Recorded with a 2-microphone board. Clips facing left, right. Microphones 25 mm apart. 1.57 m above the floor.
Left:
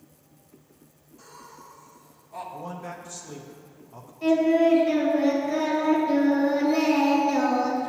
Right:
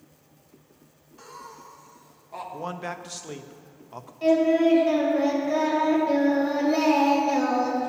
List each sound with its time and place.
1.2 s laughter: 65° right (ahead or behind), 0.9 m; by 2.4 s 40° right (ahead or behind), 1.4 m
2.5 s a man speaking: 65° right (ahead or behind), 0.6 m
4.2 s singing: 25° right (ahead or behind), 2.5 m